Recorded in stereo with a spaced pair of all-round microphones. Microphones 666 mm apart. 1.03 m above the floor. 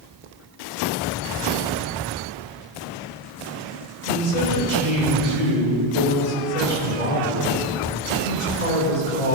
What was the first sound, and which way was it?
A man speaking, 60° left (ahead or behind).